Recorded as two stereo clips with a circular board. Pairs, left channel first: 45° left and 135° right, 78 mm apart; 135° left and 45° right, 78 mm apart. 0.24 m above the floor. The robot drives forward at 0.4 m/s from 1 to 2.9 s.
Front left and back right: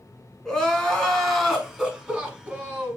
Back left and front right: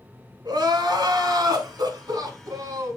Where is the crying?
40° right, 1.3 m; by 3.0 s 80° right, 0.9 m.